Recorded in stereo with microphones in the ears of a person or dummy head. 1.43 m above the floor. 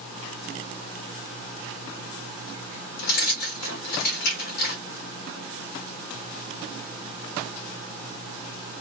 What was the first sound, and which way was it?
Keys jangling, 50° left (ahead or behind).